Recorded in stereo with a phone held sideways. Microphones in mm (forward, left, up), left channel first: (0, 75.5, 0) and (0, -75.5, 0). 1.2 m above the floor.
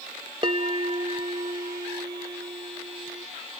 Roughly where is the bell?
Right.